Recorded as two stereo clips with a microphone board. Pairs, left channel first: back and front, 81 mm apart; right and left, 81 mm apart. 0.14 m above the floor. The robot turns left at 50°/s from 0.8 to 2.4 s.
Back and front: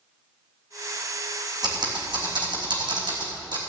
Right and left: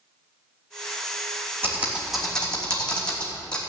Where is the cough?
I don't hear a cough.